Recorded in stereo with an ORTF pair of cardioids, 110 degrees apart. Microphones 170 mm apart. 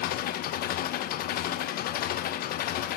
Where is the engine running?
65° left, 0.8 m.